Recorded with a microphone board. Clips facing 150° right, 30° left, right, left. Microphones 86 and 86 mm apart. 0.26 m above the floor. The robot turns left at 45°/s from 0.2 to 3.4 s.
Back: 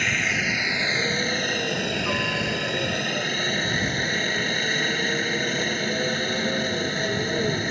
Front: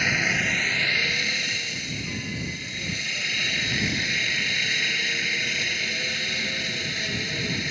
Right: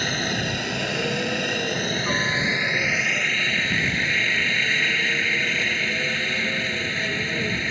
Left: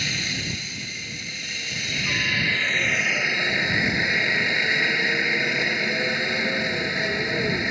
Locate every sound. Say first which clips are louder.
0.0 s a helicopter: even, right 5 dB; 55° right; by 7.7 s 165° left